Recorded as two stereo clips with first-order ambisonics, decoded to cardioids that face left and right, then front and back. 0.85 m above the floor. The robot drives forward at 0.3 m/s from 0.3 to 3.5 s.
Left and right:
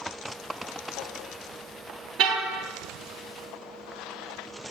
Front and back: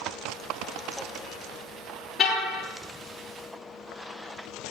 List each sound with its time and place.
2.2 s a car horn: 75° right, 6.5 m